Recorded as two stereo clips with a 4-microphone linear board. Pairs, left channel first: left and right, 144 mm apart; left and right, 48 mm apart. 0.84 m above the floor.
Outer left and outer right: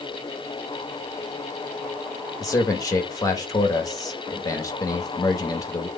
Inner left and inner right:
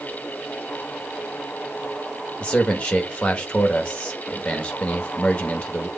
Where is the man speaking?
25° left (ahead or behind), 1.0 m.